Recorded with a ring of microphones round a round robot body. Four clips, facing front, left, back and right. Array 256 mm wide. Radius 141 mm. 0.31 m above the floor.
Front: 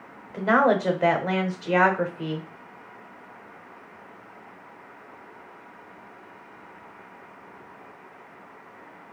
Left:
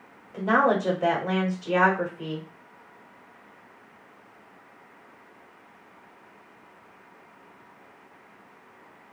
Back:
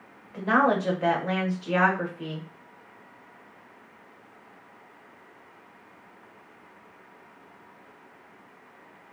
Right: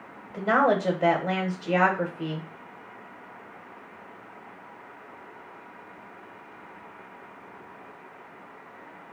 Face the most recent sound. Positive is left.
turn(degrees=-15)